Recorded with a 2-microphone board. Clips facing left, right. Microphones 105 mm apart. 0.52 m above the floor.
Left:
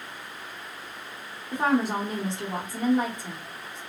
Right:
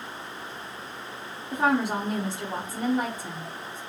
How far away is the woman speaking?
About 1.3 m.